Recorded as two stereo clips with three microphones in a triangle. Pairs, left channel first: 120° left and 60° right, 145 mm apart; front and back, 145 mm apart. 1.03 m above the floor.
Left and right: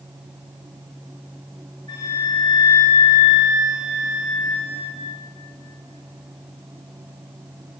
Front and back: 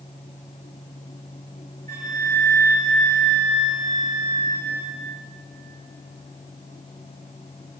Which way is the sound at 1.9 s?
Straight behind.